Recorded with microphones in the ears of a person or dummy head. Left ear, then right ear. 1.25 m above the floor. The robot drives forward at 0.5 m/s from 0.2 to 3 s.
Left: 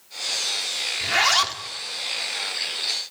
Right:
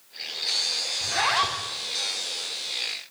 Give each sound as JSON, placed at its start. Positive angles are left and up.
{"t": 1.0, "sound": "a zipper", "side_deg": 80, "distance_m": 2.5}